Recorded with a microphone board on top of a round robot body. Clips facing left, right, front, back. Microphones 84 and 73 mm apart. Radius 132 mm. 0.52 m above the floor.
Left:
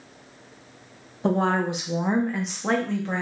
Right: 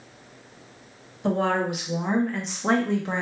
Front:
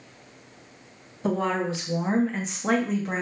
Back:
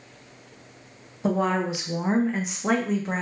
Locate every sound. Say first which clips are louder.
1.2 s a woman speaking: left 1 dB, back 2 dB; 110° left, 1.1 m; by 3.2 s 90° right, 1.0 m